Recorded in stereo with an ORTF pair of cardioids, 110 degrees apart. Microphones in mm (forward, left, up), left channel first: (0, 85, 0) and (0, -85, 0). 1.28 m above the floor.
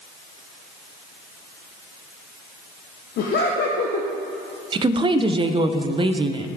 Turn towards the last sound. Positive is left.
turn(degrees=-30)